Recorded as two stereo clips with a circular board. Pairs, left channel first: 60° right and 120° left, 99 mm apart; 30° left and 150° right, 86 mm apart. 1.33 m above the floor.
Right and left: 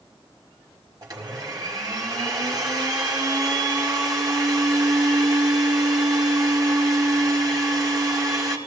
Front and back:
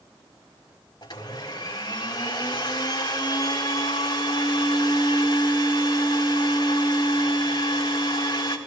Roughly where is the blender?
Left.